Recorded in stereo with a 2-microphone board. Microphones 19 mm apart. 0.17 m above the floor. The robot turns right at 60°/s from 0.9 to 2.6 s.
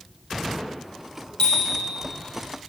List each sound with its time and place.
1.4 s a bicycle bell: 45° left (ahead or behind), 4 m; by 1.8 s 70° left (ahead or behind), 4 m